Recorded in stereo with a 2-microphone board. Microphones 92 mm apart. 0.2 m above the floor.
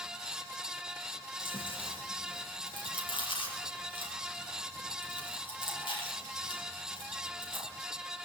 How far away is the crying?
No crying in this recording.